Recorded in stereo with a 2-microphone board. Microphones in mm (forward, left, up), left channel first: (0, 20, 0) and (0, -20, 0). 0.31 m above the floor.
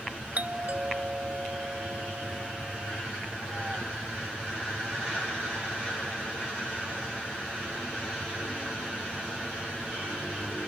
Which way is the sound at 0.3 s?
40° right (ahead or behind).